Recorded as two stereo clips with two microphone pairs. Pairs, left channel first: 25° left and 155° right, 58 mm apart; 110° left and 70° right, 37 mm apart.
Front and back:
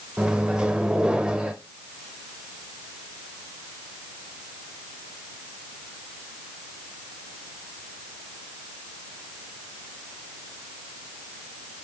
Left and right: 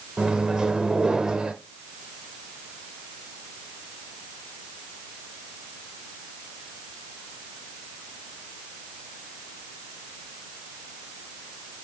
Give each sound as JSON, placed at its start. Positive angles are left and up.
{"t": 0.2, "sound": "a microwave", "azimuth_deg": -105, "distance_m": 0.8}